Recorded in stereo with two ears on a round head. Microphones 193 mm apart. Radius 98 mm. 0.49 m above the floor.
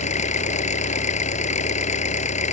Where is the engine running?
35° left (ahead or behind).